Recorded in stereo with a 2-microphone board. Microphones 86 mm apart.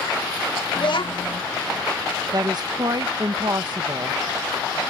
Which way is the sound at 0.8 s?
65° left (ahead or behind).